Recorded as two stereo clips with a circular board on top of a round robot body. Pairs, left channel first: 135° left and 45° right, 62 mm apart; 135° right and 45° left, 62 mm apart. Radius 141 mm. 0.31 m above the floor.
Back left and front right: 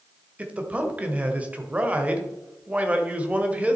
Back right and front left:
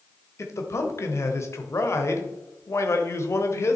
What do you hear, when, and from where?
0.4 s a man speaking: 105° right, 1.6 m